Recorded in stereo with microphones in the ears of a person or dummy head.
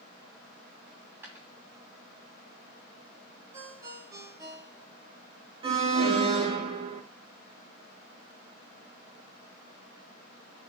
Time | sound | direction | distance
0.9 | a dropped coin | 10° right (ahead or behind) | 3 m
3.5 | a ringtone | 20° right (ahead or behind) | 2 m
5.6 | an alarm | 30° right (ahead or behind) | 2.5 m